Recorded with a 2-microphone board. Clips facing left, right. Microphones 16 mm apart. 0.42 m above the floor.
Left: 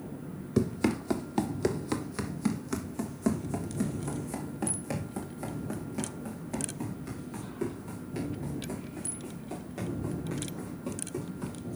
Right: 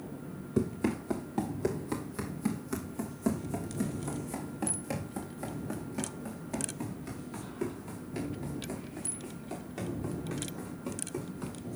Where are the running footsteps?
65° left (ahead or behind), 0.9 m; by 11.6 s 5° right (ahead or behind), 6 m.